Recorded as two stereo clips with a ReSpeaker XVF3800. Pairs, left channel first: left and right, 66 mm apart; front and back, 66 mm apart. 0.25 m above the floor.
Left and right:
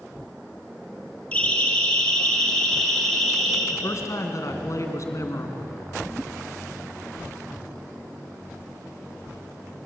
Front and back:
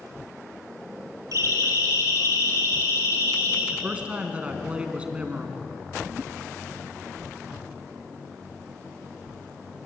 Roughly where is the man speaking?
Left.